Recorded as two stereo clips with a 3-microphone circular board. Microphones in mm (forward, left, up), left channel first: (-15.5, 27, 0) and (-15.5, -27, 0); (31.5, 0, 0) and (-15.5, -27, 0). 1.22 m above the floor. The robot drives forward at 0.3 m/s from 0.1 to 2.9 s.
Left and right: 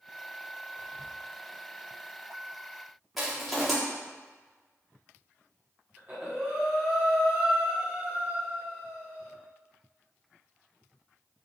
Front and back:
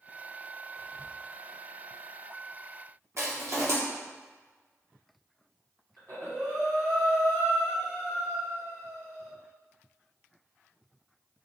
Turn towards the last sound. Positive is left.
turn(degrees=-145)